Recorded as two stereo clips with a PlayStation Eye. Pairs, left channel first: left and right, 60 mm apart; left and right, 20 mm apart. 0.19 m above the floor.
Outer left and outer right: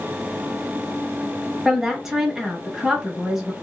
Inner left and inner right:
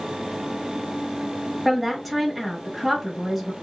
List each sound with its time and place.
1.6 s a woman speaking: 10° right (ahead or behind), 1.1 m